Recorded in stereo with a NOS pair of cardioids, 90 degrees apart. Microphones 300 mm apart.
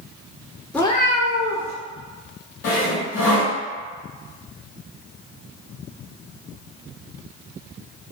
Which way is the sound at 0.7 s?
Straight ahead.